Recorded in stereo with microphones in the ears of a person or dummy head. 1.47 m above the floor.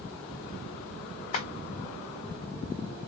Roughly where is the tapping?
Left.